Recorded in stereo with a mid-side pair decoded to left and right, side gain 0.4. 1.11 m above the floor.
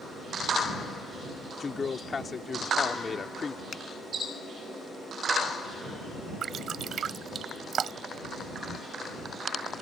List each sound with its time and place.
1.6 s a man speaking: 40° left
3.7 s a finger snap: 55° left
6.4 s dripping: 60° right